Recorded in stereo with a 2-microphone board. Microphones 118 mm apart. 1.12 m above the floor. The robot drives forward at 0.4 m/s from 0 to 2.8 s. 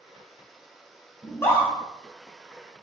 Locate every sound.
1.2 s a scream: 20° left (ahead or behind), 0.7 m; by 1.7 s 15° left (ahead or behind), 0.9 m